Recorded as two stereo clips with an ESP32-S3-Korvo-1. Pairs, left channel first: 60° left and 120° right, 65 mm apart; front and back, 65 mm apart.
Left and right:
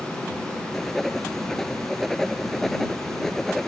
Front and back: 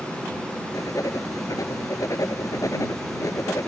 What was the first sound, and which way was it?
Writing, 25° right.